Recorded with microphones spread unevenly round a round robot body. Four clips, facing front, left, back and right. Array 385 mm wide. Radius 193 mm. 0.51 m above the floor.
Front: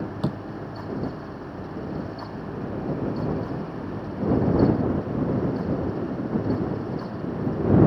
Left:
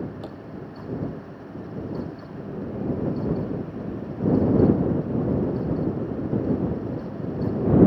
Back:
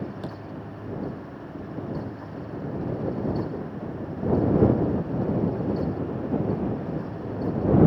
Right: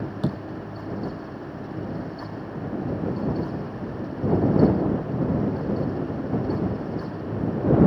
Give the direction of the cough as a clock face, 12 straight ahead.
I don't hear a cough.